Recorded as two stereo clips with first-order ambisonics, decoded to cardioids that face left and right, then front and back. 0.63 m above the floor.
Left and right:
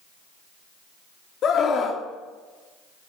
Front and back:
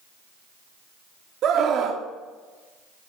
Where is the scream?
140° left, 1.0 m.